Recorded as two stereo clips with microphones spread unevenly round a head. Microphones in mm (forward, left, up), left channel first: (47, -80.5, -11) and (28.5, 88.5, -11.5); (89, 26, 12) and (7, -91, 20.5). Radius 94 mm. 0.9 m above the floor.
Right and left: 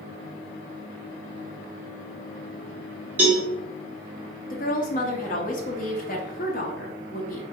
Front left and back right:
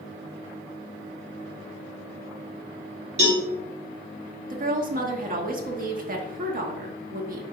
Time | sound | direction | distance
3.2 | a cowbell | 175° left | 1.2 m
4.5 | a woman speaking | 130° right | 0.9 m